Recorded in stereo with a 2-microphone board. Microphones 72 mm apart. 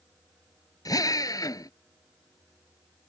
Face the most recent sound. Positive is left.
turn(degrees=60)  # may be behind; listen again after turning